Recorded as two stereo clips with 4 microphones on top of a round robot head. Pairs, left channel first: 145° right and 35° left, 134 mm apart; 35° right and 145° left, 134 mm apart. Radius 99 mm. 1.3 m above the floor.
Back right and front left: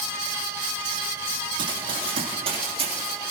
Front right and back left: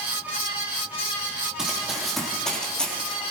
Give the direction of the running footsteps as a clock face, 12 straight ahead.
10 o'clock.